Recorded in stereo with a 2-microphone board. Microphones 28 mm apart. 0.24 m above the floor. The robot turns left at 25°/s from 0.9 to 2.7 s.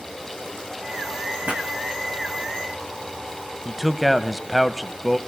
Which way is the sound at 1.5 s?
55° right (ahead or behind).